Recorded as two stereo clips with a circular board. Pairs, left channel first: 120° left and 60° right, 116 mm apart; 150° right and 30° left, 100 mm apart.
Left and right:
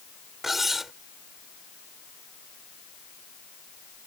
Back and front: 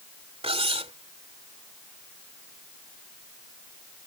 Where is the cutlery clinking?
30° left.